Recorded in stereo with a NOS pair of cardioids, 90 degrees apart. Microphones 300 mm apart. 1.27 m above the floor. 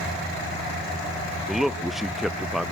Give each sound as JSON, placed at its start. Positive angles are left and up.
{"t": 1.5, "sound": "a man speaking", "azimuth_deg": 0, "distance_m": 0.6}